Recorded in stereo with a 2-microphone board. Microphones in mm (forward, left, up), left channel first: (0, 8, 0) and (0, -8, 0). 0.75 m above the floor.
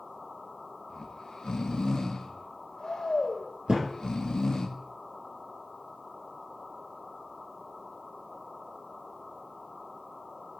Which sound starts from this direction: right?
A thud, at 3.7 s.